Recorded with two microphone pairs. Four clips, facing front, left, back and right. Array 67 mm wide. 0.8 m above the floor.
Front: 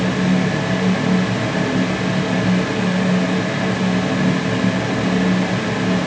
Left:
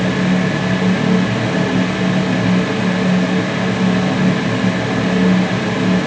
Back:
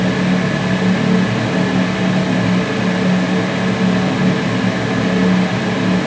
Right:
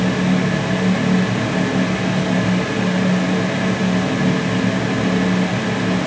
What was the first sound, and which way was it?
Only background noise.